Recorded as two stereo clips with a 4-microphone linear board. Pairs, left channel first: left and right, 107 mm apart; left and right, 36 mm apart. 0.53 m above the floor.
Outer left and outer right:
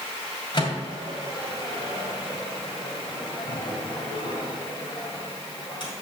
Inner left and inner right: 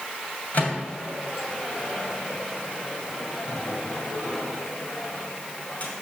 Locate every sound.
0.5 s a microwave: 50° left (ahead or behind), 3 m